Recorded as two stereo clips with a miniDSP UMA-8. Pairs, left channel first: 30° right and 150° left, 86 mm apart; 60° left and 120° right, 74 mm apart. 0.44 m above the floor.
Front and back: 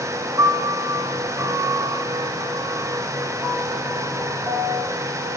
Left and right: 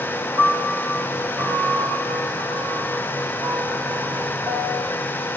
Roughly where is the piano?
Behind right.